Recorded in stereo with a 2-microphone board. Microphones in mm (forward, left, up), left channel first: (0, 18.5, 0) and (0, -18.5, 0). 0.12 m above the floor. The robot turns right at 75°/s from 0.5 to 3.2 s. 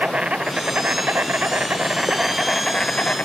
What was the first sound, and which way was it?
An insect, 140° right.